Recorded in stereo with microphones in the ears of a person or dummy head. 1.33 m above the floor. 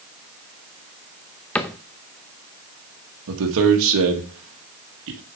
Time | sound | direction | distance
1.6 | a cupboard door | 5° left (ahead or behind) | 0.5 m
3.3 | a man speaking | 70° right (ahead or behind) | 1.6 m